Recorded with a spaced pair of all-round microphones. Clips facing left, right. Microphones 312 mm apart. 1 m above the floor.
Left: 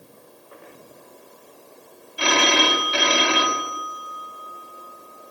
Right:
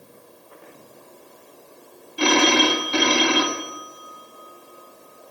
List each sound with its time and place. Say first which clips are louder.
2.2 s a phone ringing: right 4 dB; 50° right (ahead or behind), 1.5 m